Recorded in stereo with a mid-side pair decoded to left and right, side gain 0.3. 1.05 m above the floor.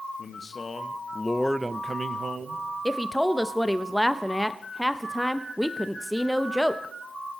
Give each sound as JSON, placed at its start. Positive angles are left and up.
{"t": 0.2, "sound": "a man speaking", "azimuth_deg": 55, "distance_m": 1.4}
{"t": 2.9, "sound": "a woman speaking", "azimuth_deg": 5, "distance_m": 0.6}